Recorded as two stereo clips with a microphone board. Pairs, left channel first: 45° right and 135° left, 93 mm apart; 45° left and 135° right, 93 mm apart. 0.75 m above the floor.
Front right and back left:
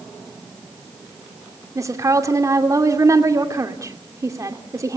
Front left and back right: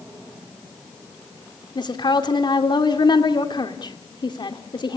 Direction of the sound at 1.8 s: 80° left.